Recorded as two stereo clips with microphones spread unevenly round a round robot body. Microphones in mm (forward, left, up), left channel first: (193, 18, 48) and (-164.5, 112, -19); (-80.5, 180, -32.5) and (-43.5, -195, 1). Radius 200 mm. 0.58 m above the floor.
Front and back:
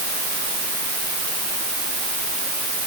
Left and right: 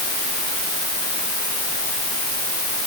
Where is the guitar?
No guitar in this recording.